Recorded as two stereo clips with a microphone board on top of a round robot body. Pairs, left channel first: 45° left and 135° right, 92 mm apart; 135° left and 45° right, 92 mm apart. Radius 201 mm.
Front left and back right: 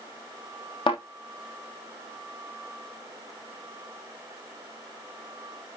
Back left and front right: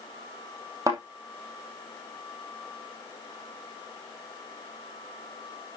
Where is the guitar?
I don't hear a guitar.